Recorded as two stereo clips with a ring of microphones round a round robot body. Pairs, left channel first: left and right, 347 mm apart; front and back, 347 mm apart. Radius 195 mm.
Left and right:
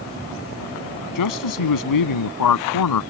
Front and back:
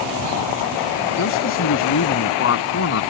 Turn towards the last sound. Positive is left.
turn(degrees=60)